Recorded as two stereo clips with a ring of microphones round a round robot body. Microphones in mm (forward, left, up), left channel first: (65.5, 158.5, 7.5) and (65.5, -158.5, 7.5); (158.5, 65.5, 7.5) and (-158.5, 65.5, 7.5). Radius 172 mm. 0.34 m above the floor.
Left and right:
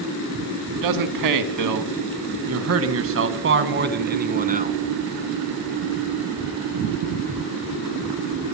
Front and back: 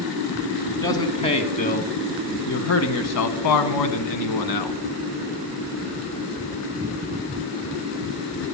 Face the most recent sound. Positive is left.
turn(degrees=-25)